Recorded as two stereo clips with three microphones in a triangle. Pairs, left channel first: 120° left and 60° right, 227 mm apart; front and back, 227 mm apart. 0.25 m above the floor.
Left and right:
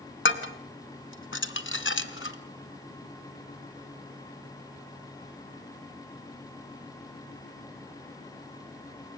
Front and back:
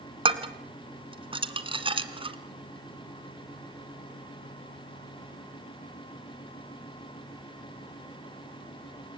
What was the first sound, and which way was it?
Dishes clattering, 115° left.